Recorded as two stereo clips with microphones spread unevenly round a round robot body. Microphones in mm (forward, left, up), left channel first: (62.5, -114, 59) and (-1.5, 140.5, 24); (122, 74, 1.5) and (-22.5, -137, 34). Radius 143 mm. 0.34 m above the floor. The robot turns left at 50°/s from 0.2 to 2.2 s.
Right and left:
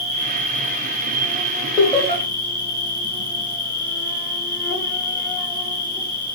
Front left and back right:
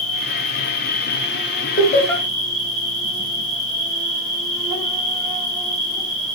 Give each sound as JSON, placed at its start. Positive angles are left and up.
{"t": 0.0, "sound": "an insect", "azimuth_deg": 35, "distance_m": 2.0}
{"t": 1.8, "sound": "laughter", "azimuth_deg": 15, "distance_m": 1.3}